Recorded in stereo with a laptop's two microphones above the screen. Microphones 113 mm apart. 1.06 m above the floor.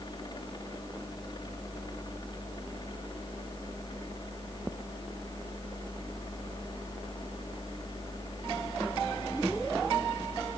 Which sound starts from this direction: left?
A fan, at 0.0 s.